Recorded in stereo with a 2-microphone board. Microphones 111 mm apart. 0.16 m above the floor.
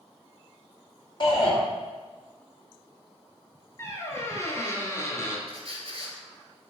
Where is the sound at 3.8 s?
25° left (ahead or behind), 1.0 m.